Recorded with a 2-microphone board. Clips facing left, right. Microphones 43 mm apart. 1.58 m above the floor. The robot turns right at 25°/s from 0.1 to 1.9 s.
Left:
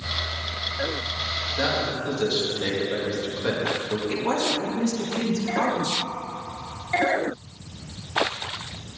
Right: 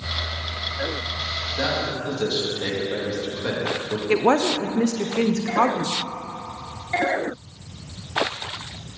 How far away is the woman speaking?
About 0.8 m.